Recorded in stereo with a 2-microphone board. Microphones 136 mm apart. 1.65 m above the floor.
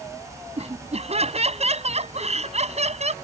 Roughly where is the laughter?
Right.